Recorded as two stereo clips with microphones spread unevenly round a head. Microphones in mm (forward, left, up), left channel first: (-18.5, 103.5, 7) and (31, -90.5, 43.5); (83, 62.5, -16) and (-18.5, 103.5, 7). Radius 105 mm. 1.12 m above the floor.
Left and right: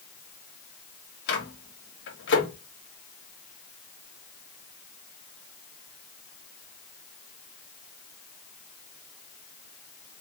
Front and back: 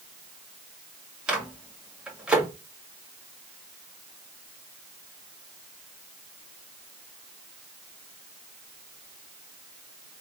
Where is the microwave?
75° left, 2.0 m.